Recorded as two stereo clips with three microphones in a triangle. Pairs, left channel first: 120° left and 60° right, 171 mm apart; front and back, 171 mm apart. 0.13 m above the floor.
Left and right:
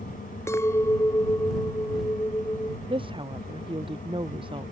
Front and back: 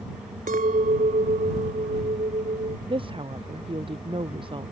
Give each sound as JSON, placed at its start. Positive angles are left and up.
{"t": 0.5, "sound": "a clink", "azimuth_deg": -170}
{"t": 2.9, "sound": "a woman speaking", "azimuth_deg": -120}